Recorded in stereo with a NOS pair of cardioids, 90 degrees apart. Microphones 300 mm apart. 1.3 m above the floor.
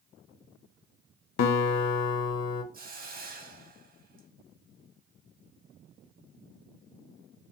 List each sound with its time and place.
1.4 s a guitar: 60° left, 0.5 m
2.7 s a hiss: 30° right, 0.8 m